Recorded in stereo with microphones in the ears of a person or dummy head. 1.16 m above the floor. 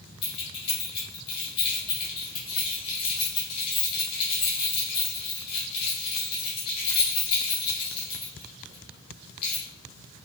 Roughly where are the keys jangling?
Left.